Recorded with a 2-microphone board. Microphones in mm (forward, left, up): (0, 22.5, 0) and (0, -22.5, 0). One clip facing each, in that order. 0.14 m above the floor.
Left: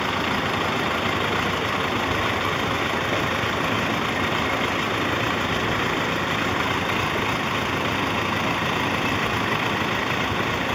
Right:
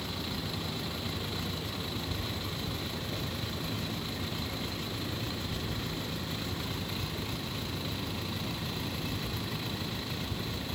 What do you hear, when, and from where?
0.0 s a vehicle: 60° left (ahead or behind)